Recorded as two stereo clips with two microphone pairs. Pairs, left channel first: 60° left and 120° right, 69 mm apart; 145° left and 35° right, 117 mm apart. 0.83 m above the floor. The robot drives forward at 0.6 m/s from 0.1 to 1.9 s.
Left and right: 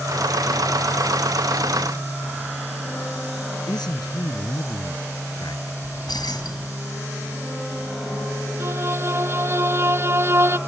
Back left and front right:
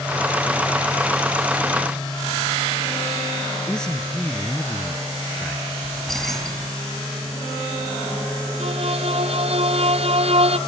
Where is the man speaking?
60° left.